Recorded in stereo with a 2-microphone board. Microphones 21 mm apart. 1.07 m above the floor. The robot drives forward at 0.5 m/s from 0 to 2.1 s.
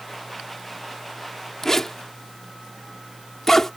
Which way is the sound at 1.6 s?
20° left (ahead or behind).